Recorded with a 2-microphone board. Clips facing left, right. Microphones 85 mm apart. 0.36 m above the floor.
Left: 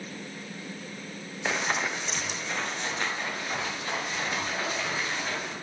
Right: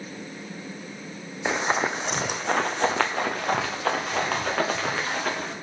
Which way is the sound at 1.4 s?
15° right (ahead or behind).